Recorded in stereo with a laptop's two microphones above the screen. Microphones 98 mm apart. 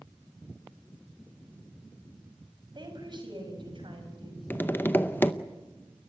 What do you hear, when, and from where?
2.8 s a woman speaking: 50° right (ahead or behind), 5.5 m; by 4.4 s 60° right (ahead or behind), 5 m
4.5 s tapping: 20° left (ahead or behind), 0.6 m